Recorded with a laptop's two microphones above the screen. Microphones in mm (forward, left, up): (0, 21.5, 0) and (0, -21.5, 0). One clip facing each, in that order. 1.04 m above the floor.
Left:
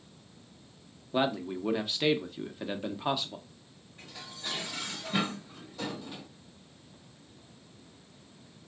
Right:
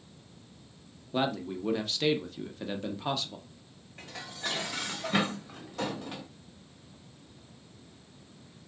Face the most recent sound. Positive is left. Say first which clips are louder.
# right 5 dB
turn(degrees=-75)  # may be behind; listen again after turning